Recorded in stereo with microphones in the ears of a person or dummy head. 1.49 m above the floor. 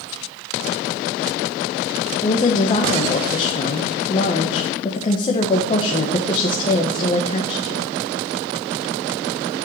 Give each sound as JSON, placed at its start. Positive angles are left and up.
{"t": 2.2, "sound": "a woman speaking", "side_deg": 30, "distance_m": 1.4}